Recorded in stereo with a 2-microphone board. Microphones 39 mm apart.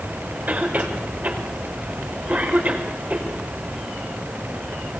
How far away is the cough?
About 5 m.